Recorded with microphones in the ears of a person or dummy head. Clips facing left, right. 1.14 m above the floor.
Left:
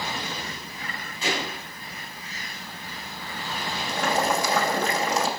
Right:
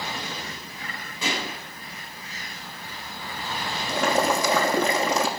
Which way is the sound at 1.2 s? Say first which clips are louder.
Left 1 dB; 85° right.